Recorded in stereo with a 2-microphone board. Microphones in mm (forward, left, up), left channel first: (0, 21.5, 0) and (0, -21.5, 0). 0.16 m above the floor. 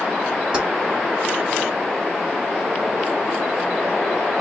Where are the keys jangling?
20° right (ahead or behind), 1.1 m.